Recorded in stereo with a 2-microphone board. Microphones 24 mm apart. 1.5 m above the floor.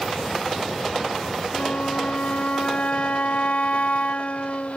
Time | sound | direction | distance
1.5 | a flute | 65° left (ahead or behind) | ?